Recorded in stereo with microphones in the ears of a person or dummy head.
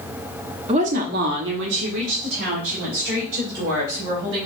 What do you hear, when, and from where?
0.7 s a woman speaking: 35° right (ahead or behind), 0.9 m; by 4.5 s 75° right (ahead or behind), 4 m